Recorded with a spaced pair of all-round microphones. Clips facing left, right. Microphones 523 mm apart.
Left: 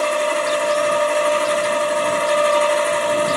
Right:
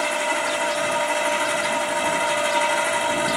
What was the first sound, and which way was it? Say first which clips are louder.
A machine running: left 7 dB; 10° right (ahead or behind).